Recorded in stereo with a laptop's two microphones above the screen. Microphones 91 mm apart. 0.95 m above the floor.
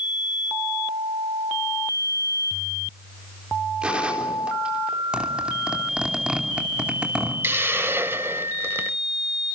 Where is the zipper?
10° right (ahead or behind), 2.5 m.